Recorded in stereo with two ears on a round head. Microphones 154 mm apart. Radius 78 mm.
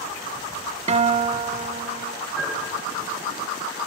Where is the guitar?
40° right (ahead or behind), 0.9 m.